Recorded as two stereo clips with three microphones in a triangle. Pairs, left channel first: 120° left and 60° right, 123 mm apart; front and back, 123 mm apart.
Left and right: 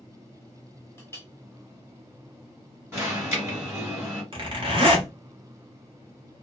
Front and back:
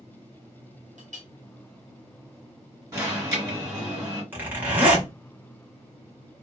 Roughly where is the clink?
Behind.